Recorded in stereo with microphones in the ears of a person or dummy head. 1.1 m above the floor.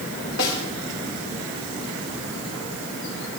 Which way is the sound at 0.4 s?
85° left.